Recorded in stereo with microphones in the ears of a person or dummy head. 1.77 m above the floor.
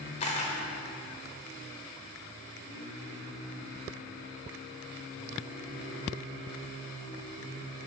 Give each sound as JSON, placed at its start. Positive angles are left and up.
{"t": 0.2, "sound": "a camera shutter", "side_deg": 30, "distance_m": 1.0}